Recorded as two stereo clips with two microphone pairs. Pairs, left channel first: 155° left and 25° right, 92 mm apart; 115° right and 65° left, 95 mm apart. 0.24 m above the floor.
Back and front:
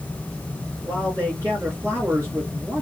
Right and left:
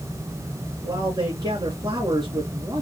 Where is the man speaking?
30° left, 3 m.